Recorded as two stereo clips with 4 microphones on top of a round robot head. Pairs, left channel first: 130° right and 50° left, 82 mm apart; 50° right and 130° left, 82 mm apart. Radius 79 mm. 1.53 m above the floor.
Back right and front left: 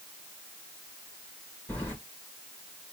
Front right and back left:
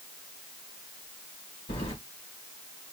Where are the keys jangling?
65° right, 1.5 m.